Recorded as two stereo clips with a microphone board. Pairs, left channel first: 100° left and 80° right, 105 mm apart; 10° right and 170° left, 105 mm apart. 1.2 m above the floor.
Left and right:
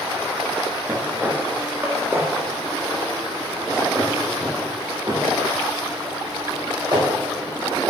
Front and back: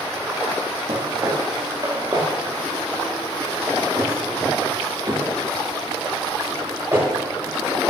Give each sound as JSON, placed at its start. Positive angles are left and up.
{"t": 0.9, "sound": "footsteps", "azimuth_deg": -155, "distance_m": 3.5}